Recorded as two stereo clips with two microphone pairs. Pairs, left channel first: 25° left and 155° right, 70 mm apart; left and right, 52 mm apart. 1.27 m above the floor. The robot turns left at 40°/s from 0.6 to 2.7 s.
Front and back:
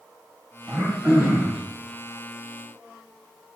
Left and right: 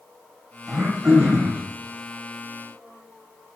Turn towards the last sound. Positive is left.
turn(degrees=-155)